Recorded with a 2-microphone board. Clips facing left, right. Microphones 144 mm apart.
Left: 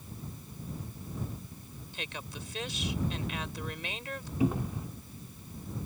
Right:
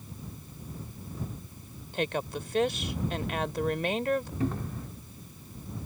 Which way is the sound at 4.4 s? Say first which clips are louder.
Left 2 dB; 10° left (ahead or behind).